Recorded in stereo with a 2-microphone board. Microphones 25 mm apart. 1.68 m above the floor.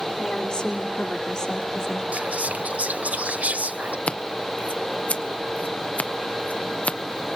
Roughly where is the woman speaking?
Left.